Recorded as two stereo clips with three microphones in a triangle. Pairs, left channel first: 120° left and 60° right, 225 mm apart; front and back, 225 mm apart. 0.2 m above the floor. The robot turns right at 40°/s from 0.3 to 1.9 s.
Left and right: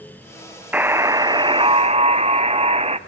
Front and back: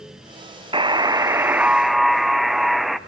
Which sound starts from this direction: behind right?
A buzzer, at 0.7 s.